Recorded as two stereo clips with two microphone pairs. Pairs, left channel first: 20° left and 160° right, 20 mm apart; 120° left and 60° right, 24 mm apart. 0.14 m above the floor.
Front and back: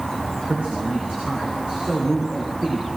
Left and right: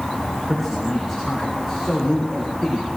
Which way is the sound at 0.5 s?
160° right.